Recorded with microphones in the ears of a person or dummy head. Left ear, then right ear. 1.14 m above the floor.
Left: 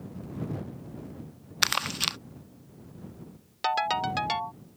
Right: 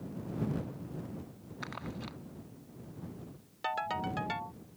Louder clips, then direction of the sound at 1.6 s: Left 17 dB; 55° left (ahead or behind).